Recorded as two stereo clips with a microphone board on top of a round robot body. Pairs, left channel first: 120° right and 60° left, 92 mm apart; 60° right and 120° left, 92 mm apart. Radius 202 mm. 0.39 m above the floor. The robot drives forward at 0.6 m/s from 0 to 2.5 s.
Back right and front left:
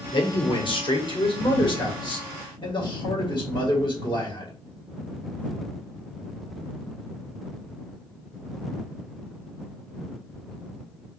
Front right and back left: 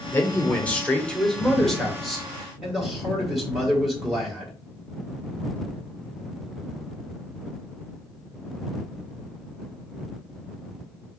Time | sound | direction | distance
0.1 | a man speaking | 125° right | 1.7 m